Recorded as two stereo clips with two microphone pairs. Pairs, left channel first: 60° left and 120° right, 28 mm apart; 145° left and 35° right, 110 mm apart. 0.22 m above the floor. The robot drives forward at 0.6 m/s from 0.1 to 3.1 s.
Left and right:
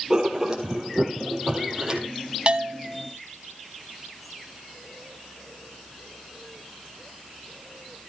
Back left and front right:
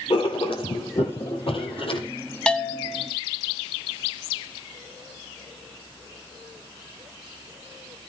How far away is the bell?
About 1.2 m.